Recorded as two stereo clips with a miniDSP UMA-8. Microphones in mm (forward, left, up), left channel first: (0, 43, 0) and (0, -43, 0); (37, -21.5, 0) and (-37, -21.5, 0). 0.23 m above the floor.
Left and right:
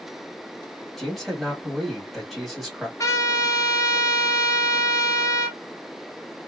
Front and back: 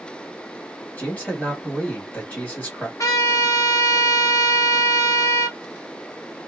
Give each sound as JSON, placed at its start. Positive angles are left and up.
{"t": 1.0, "sound": "a man speaking", "azimuth_deg": 5, "distance_m": 1.4}
{"t": 3.0, "sound": "a trumpet", "azimuth_deg": 40, "distance_m": 0.9}